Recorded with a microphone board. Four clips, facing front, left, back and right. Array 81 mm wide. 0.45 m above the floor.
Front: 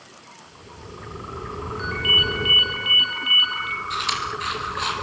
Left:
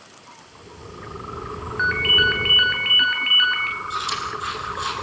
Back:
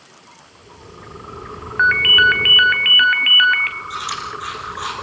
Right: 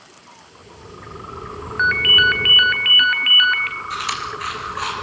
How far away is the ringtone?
About 1.9 m.